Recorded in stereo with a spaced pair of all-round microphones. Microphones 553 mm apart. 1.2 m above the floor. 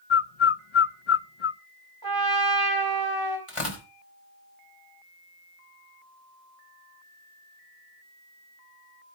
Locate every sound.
0.1 s a bird: 60° left (ahead or behind), 0.6 m
2.0 s a trumpet: 40° right (ahead or behind), 4.5 m
3.5 s tearing paper: 65° left (ahead or behind), 4.5 m